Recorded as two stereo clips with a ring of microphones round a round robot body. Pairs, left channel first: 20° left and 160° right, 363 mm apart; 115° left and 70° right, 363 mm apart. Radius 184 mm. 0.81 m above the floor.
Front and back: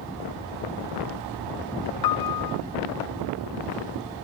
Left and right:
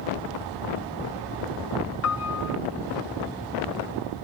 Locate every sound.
2.0 s a piano: 60° left